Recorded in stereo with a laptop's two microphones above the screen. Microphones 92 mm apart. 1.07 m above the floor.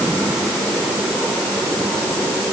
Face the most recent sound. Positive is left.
No sound to turn to.